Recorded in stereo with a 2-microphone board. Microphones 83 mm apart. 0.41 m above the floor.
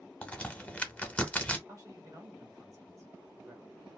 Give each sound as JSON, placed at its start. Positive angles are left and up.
{"t": 0.2, "sound": "a crack", "side_deg": 15, "distance_m": 0.7}
{"t": 1.7, "sound": "a man speaking", "side_deg": -40, "distance_m": 1.1}